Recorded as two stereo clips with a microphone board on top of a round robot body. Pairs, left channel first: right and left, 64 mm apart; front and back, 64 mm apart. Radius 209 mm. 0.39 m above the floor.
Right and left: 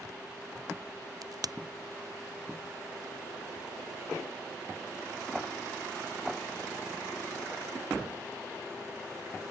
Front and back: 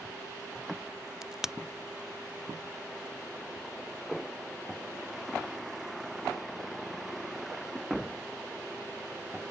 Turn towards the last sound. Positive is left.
turn(degrees=100)